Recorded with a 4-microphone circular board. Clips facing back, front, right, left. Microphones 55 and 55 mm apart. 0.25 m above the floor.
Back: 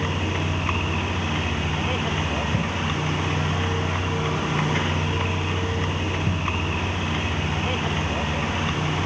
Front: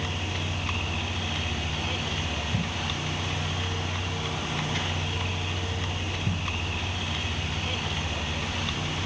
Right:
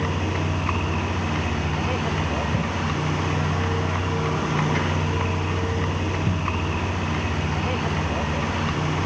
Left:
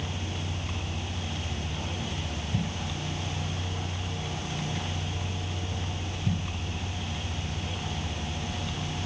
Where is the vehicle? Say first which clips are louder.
Back 6 dB, right 10 dB; 120° right.